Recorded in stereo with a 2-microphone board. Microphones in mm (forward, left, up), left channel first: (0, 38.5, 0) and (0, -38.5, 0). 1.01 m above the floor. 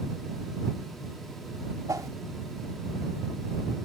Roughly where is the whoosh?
Right.